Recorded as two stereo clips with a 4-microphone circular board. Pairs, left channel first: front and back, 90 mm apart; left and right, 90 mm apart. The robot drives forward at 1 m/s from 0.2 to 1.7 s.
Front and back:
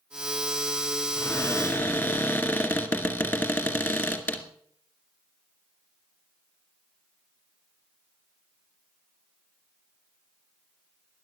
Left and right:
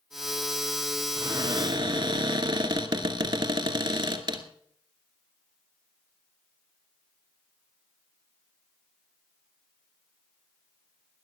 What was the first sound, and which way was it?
A cupboard door, 60° right.